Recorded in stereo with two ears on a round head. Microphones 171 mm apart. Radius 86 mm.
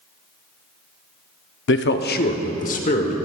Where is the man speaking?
70° left (ahead or behind), 0.6 m; by 3.2 s 40° left (ahead or behind), 1.4 m.